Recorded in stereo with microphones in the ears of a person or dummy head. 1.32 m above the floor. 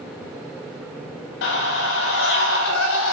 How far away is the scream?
About 6.5 m.